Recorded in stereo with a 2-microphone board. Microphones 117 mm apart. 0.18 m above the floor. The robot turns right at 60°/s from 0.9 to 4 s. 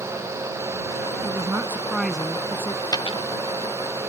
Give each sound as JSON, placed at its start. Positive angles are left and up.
{"t": 1.2, "sound": "a woman speaking", "azimuth_deg": -55}
{"t": 2.9, "sound": "a dropped coin", "side_deg": 35}